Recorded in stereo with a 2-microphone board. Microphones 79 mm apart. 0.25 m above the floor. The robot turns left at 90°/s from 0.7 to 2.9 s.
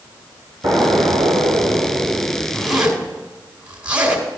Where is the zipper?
15° left (ahead or behind), 2 m; by 4.2 s 15° right (ahead or behind), 2 m.